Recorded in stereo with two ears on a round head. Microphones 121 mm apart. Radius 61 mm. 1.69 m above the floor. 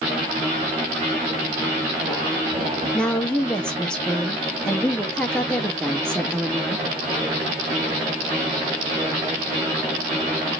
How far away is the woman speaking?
About 0.6 m.